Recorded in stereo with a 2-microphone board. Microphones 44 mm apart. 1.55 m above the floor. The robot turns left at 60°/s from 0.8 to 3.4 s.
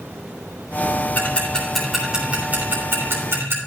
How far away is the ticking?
About 3.5 m.